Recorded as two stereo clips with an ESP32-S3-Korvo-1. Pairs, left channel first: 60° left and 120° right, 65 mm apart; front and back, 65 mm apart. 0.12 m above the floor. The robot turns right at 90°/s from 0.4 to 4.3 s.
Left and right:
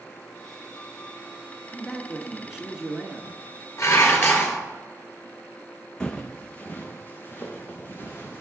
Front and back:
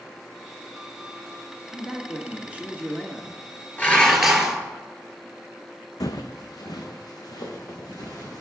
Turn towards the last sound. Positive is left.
turn(degrees=5)